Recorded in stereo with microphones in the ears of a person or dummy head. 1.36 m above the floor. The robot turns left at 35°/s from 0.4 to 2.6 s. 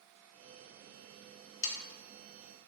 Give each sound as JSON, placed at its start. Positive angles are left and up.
{"t": 1.6, "sound": "sawing", "side_deg": 70, "distance_m": 1.3}